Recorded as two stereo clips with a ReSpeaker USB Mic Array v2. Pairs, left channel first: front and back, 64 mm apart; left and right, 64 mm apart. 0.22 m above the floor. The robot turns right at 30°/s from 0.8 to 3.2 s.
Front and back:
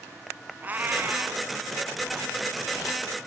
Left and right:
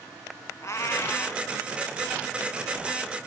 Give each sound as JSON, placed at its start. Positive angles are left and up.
{"t": 0.6, "sound": "a cat meowing", "azimuth_deg": 120, "distance_m": 0.7}